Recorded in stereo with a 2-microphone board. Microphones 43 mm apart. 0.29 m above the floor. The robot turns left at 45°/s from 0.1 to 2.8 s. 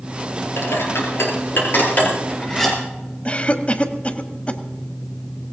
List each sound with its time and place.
0.6 s dishes clattering: 75° left (ahead or behind), 3.5 m; by 2.8 s 5° left (ahead or behind), 3.5 m
3.2 s a cough: 30° left (ahead or behind), 1.2 m